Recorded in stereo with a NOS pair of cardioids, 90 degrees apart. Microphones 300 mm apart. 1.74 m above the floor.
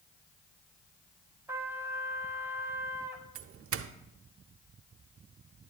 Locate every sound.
1.5 s a trumpet: 10° right, 1.4 m
3.4 s a doorbell: 50° right, 0.6 m